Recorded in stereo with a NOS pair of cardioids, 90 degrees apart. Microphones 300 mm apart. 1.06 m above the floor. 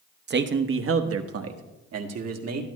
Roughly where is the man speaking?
Ahead right.